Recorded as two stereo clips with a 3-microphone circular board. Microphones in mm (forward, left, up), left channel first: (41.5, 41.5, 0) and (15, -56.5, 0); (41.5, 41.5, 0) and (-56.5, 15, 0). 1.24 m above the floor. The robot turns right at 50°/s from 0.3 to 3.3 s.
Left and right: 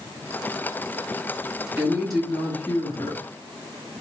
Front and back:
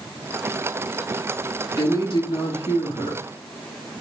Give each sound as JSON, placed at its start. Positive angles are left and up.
{"t": 1.8, "sound": "a woman speaking", "azimuth_deg": -30, "distance_m": 2.5}